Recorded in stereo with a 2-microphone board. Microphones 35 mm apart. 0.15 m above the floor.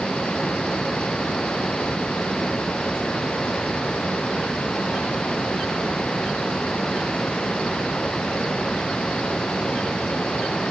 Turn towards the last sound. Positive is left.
No sound to turn to.